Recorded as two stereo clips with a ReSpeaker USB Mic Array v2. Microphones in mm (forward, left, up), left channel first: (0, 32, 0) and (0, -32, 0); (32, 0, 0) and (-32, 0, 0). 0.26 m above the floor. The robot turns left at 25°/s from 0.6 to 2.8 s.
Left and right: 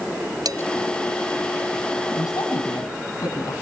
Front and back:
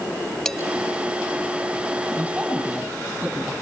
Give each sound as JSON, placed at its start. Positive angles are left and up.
{"t": 0.5, "sound": "dishes clattering", "azimuth_deg": -80, "distance_m": 4.5}
{"t": 2.2, "sound": "a woman speaking", "azimuth_deg": 110, "distance_m": 7.5}